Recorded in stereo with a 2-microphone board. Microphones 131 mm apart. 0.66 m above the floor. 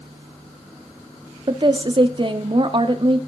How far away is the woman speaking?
About 1.0 m.